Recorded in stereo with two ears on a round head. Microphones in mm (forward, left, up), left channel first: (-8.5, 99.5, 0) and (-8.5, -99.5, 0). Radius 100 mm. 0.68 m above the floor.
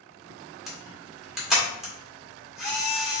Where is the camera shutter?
Centre (ahead or behind), 2 m.